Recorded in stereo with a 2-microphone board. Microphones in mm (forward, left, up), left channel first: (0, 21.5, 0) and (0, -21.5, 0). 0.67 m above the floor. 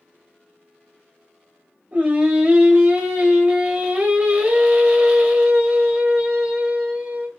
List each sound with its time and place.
1.9 s singing: 30° right (ahead or behind), 0.8 m